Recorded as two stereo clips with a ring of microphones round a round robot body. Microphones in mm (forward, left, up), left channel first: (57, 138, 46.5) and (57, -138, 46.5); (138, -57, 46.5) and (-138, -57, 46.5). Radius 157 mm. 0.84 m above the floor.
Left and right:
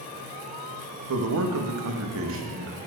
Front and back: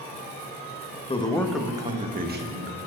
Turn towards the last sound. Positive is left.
turn(degrees=-140)